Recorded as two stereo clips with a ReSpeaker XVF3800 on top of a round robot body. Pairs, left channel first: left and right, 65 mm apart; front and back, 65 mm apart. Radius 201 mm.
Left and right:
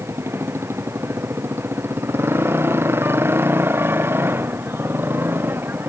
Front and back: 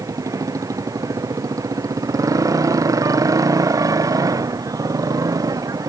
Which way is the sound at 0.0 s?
145° right.